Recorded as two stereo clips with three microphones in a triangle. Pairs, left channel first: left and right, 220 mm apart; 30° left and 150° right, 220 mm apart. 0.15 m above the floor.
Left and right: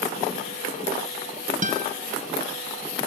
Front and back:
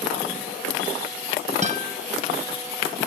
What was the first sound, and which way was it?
A guitar, 115° right.